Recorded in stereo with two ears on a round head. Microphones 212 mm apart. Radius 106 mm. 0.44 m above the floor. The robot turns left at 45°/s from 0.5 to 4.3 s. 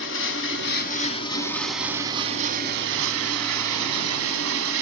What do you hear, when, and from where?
0.0 s running water: 55° left, 1.5 m; by 4.8 s 115° right, 1.5 m